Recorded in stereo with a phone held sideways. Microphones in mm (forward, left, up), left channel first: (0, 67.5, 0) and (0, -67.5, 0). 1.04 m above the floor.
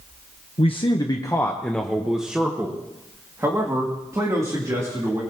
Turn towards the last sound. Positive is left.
turn(degrees=-25)  # may be behind; listen again after turning